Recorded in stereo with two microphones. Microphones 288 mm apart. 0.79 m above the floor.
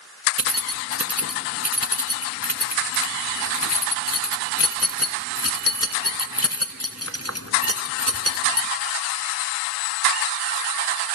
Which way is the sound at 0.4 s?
55° left (ahead or behind).